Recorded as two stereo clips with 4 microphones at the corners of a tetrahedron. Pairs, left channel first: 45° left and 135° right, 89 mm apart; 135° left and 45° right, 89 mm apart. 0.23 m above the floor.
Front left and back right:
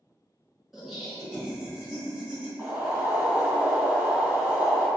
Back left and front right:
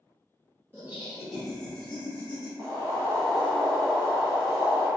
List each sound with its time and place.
0.7 s laughter: 50° right, 1.0 m; by 2.5 s 160° left, 1.1 m
2.6 s boiling: 65° right, 1.8 m